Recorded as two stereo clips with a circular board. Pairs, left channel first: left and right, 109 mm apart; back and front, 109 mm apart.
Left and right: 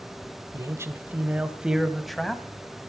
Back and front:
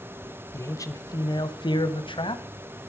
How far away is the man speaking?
About 1.3 m.